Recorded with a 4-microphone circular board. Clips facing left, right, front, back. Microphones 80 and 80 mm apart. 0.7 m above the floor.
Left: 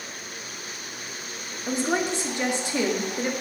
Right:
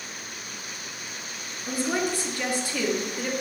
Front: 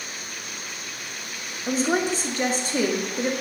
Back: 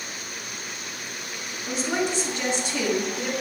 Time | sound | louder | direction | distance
1.7 | a woman speaking | left 2 dB, front 3 dB | 30° left | 1.1 m